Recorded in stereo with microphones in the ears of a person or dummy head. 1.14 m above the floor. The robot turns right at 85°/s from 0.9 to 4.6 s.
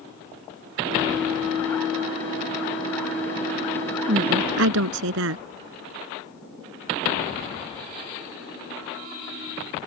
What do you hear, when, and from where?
4.1 s a woman speaking: 145° right; by 5.4 s 100° right